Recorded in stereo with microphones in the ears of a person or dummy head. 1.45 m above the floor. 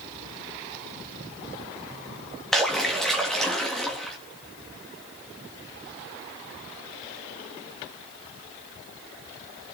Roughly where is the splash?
Centre.